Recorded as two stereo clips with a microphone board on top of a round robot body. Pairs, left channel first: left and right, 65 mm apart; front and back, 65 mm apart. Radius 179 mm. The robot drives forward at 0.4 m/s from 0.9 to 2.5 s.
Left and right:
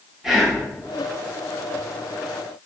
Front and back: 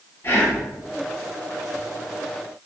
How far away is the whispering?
About 1.3 m.